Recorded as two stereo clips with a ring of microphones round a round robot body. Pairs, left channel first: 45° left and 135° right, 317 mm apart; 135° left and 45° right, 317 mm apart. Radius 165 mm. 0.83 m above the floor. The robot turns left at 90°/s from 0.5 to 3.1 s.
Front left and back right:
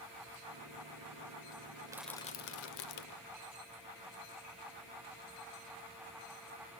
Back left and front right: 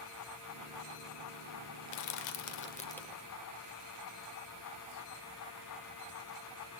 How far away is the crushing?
About 0.9 m.